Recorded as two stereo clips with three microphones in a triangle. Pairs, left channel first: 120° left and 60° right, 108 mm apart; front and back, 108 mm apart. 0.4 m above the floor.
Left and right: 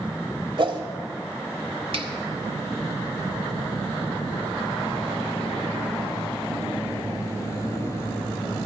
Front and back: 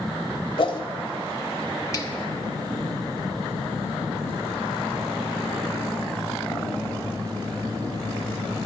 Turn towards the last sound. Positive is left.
turn(degrees=-50)